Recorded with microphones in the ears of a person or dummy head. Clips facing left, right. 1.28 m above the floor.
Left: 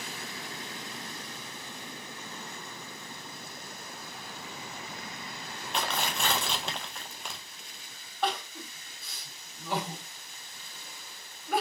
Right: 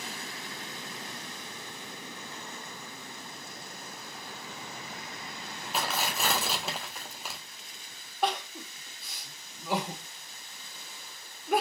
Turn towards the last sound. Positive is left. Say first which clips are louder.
# right 1 dB
turn(degrees=-10)  # may be behind; listen again after turning